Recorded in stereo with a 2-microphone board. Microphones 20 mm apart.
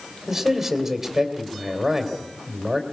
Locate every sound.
0.3 s a man speaking: 15° right (ahead or behind), 3 m